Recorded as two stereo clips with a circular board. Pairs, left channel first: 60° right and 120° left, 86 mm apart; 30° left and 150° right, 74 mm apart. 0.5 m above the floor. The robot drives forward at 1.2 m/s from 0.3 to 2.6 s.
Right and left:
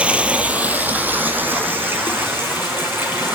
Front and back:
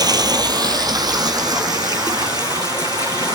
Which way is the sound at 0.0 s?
165° right.